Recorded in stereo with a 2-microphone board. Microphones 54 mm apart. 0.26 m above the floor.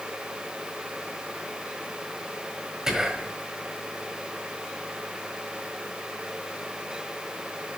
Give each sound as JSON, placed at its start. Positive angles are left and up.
{"t": 2.9, "sound": "whispering", "side_deg": -10, "distance_m": 1.5}